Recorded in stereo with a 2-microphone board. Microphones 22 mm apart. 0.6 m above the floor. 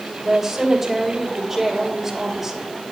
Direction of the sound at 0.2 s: 15° right (ahead or behind).